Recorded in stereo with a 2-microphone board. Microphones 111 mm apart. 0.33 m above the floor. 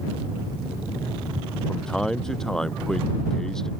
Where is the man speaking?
5° left (ahead or behind).